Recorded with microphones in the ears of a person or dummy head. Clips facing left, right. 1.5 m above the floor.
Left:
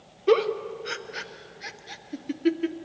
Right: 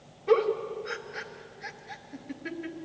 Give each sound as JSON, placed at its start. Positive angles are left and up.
{"t": 0.3, "sound": "a giggle", "side_deg": 45, "distance_m": 1.0}